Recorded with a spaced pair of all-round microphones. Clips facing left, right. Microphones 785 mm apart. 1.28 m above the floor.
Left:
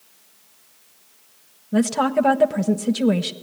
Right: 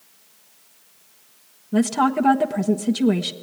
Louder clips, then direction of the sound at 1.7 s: Even; 15° left (ahead or behind).